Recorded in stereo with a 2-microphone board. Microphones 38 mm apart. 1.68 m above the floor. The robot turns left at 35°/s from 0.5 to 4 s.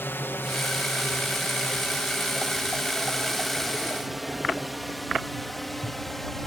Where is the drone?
75° left (ahead or behind); by 6.5 s 10° left (ahead or behind).